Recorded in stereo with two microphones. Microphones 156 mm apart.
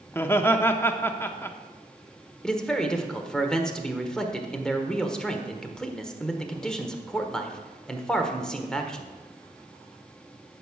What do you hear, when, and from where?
0.1 s laughter: 15° left (ahead or behind), 0.8 m
2.4 s a man speaking: 5° left (ahead or behind), 1.3 m